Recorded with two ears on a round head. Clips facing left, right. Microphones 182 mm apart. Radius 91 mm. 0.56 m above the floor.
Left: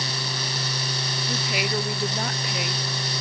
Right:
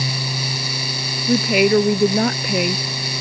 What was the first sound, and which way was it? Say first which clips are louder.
A woman speaking: right 15 dB; 55° right (ahead or behind).